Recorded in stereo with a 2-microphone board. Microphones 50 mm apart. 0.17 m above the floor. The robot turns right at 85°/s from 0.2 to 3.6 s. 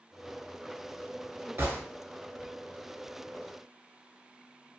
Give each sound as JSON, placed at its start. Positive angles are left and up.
{"t": 1.6, "sound": "a gunshot", "side_deg": -50, "distance_m": 0.8}